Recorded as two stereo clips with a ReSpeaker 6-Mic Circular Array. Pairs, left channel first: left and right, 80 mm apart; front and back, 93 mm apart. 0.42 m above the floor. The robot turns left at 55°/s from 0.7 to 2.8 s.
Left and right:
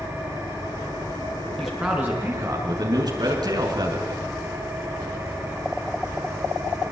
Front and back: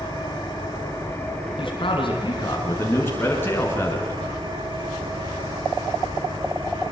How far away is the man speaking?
About 5.5 m.